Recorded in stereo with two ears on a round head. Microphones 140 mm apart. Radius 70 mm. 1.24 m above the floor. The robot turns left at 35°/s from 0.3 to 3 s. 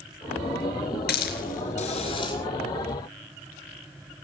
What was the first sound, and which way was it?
A hiss, 70° left (ahead or behind).